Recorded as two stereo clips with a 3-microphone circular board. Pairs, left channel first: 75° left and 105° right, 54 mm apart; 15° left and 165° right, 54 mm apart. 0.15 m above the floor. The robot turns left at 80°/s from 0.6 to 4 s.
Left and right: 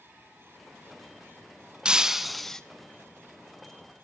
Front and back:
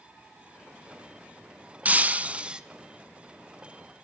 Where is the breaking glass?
155° right, 0.7 m; by 2.6 s 140° left, 0.7 m.